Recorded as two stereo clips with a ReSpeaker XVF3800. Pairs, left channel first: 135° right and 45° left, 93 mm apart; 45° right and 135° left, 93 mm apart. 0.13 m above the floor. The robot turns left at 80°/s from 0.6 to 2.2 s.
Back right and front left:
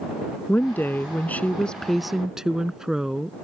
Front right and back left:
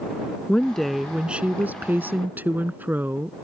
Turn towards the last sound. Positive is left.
turn(degrees=120)